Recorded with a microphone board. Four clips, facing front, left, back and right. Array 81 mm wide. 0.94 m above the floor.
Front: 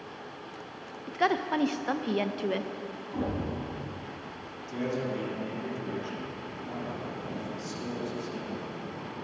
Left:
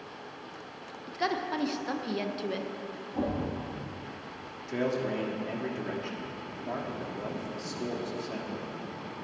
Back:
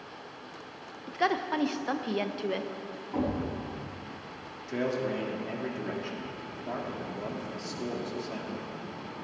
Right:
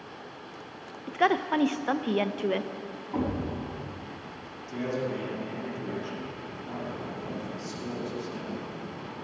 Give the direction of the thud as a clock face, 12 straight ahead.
4 o'clock.